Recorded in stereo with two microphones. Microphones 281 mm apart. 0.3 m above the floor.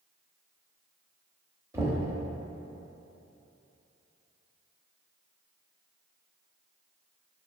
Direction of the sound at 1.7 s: 10° right (ahead or behind).